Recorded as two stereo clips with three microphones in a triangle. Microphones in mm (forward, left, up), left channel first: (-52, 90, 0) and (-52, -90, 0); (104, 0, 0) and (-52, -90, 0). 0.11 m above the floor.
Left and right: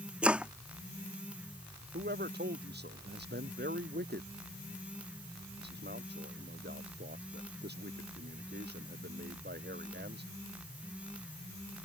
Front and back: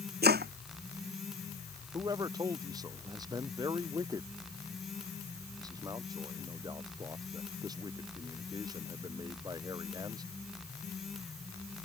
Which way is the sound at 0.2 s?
175° right.